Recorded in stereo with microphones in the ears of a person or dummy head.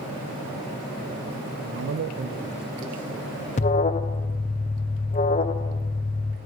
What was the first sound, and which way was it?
A man speaking, 50° right (ahead or behind).